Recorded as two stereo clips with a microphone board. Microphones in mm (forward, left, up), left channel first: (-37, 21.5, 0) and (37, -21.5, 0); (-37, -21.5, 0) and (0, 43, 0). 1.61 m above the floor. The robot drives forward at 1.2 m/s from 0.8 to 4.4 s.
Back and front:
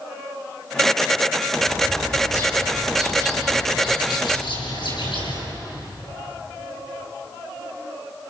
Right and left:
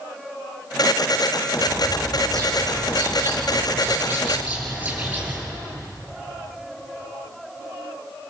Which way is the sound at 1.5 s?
85° left.